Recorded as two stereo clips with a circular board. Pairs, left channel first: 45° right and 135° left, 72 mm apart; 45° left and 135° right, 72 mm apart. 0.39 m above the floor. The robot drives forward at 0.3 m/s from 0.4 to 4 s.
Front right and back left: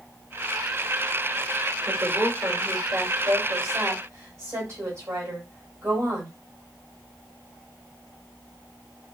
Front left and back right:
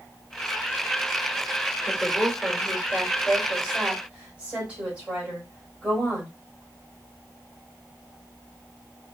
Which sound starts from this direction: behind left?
A woman speaking, at 1.9 s.